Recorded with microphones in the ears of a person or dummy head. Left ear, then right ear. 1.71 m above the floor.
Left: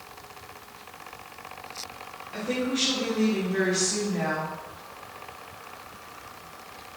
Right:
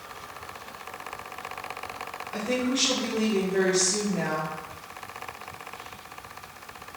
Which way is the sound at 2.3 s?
20° right (ahead or behind).